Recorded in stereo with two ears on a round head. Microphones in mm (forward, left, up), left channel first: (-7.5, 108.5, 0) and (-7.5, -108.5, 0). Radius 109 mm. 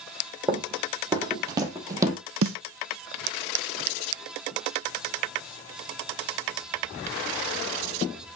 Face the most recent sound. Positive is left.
turn(degrees=-65)  # may be behind; listen again after turning